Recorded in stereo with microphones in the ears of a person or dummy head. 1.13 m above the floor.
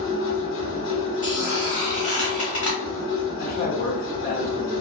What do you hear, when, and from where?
0.0 s a machine running: 65° left (ahead or behind), 1.0 m
1.2 s a squeak: 35° left (ahead or behind), 1.3 m
3.4 s a man speaking: 35° left (ahead or behind), 0.7 m